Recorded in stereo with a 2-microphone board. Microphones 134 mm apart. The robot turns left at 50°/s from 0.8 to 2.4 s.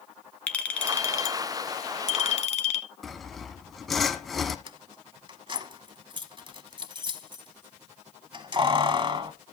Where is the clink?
165° left, 1.1 m; by 2.9 s 85° left, 1.1 m.